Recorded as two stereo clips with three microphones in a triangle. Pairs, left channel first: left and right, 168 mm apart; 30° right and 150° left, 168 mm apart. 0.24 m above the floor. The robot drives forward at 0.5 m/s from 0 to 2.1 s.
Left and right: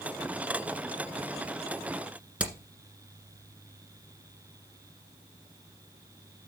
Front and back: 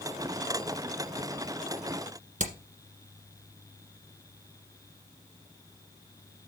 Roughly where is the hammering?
Behind.